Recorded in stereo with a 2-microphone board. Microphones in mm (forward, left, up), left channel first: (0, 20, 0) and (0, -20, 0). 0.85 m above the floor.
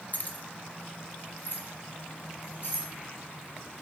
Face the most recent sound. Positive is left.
turn(degrees=70)  # may be behind; listen again after turning